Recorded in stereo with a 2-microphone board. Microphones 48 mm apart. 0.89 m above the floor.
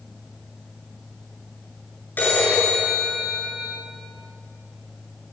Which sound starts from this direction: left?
A phone ringing, at 2.2 s.